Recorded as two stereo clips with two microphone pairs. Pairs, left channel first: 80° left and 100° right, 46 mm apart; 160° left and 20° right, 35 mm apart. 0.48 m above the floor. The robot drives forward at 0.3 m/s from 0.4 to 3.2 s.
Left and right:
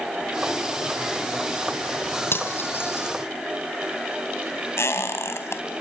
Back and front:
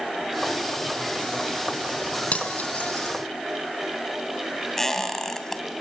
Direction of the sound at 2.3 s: 110° left.